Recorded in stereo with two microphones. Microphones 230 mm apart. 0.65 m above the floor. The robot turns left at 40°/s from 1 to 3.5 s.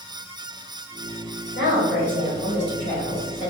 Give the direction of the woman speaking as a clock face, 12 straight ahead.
8 o'clock.